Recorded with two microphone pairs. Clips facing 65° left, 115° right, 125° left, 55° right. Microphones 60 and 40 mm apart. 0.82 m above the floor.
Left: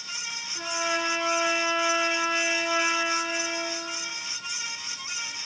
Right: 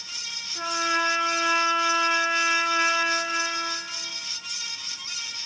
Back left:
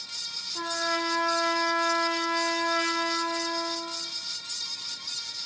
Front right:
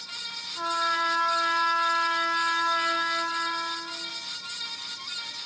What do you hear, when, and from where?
0.6 s a trumpet: 160° left, 2 m